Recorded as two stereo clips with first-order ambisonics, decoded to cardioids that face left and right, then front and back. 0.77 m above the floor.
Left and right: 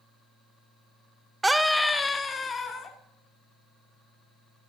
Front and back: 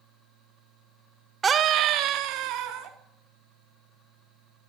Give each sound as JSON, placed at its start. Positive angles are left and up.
{"t": 1.4, "sound": "a scream", "azimuth_deg": -155, "distance_m": 0.5}